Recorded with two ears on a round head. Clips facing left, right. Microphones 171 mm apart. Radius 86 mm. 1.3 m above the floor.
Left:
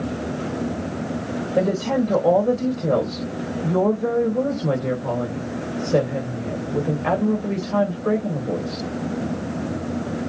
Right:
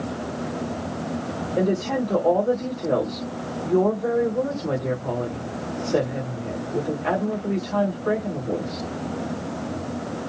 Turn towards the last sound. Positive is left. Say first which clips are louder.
# left 2 dB
turn(degrees=55)  # may be behind; listen again after turning